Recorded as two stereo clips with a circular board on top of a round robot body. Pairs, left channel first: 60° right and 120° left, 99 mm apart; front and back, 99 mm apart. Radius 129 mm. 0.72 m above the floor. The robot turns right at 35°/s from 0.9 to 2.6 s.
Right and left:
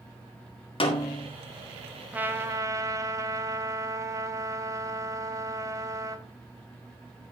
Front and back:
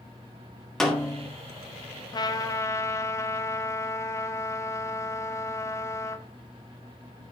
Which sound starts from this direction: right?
A snare drum, at 0.8 s.